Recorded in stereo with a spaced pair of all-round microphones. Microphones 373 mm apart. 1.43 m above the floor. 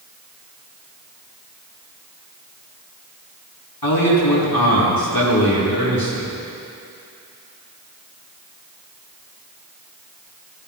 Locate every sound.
3.8 s a man speaking: 70° left (ahead or behind), 3.5 m